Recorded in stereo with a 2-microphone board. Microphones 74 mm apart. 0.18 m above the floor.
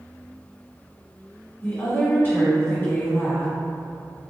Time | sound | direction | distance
1.6 | a woman speaking | 30° left (ahead or behind) | 1.4 m